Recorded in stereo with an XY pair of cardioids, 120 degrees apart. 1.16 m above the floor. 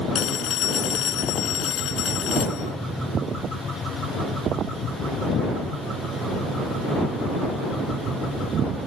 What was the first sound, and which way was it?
A phone ringing, 65° left.